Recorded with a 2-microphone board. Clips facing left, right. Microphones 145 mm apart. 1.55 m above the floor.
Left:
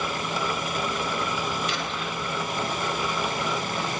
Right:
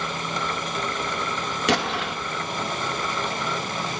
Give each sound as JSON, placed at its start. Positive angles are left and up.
{"t": 1.7, "sound": "an explosion", "side_deg": -85, "distance_m": 3.0}